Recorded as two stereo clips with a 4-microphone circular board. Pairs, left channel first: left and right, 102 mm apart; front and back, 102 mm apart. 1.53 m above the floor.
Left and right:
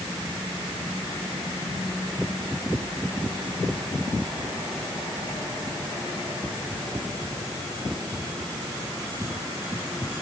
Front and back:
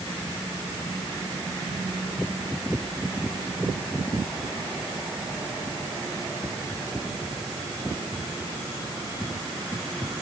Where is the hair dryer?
No hair dryer in this recording.